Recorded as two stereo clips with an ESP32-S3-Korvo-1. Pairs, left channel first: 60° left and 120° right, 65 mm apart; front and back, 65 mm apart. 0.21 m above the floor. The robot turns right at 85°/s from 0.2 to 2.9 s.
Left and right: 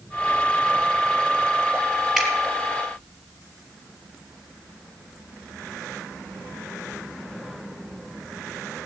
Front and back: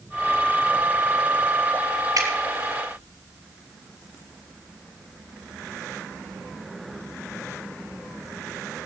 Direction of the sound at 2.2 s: 150° left.